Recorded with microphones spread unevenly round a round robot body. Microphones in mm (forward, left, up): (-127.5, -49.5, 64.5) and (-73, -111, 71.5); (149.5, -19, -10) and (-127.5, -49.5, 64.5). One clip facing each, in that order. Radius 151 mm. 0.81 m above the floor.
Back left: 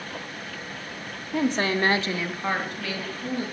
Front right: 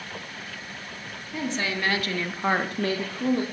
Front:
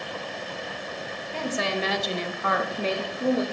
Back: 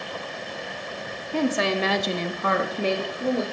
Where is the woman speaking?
145° left, 1.5 m; by 3.4 s 70° right, 1.7 m.